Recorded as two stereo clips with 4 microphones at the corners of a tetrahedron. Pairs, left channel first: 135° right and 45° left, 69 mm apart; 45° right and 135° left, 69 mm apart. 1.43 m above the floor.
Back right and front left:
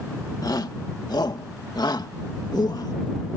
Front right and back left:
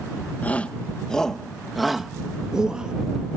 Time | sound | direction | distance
0.4 | a shout | 110° right | ?